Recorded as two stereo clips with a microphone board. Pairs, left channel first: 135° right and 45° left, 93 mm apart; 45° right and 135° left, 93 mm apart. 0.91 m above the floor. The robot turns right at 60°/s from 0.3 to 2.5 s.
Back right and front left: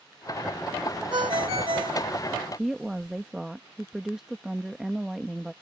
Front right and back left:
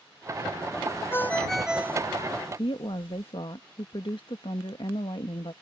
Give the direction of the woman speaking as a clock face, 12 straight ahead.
1 o'clock.